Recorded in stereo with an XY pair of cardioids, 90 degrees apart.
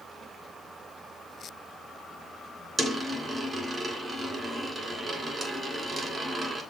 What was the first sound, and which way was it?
A dropped coin, 45° right.